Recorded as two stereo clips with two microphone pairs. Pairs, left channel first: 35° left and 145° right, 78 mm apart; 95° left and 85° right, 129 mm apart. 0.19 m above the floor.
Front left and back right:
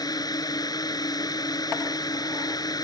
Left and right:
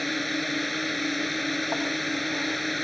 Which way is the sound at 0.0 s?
5° left.